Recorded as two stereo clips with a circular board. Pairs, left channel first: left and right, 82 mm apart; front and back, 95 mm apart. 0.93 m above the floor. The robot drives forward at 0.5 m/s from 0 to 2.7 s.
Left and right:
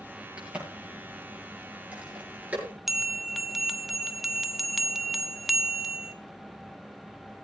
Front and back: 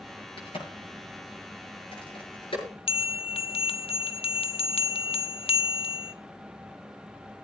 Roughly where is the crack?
Ahead.